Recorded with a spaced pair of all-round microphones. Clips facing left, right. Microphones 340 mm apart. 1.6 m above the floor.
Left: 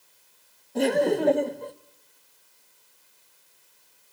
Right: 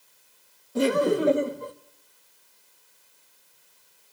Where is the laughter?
10° right (ahead or behind), 0.8 m.